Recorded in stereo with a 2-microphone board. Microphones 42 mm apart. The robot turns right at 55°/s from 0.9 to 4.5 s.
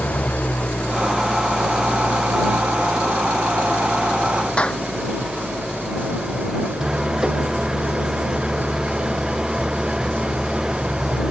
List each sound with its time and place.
0.0 s an engine running: 145° left; by 11.3 s 15° right
4.6 s a clap: 25° left (ahead or behind)